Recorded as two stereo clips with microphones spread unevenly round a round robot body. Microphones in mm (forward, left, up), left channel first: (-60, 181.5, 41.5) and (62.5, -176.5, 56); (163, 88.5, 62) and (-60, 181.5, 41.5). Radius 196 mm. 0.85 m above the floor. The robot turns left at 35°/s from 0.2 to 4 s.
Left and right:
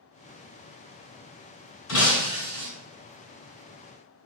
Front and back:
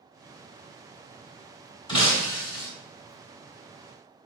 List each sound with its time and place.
1.9 s breaking glass: 50° left, 1.6 m; by 2.7 s 20° left, 1.6 m